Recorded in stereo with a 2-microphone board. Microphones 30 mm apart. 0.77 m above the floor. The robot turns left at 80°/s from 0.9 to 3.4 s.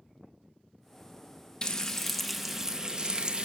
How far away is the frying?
About 0.5 m.